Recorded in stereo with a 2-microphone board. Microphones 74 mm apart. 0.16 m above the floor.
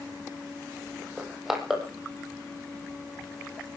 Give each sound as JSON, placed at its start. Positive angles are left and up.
{"t": 1.2, "sound": "crushing", "side_deg": -5, "distance_m": 4.0}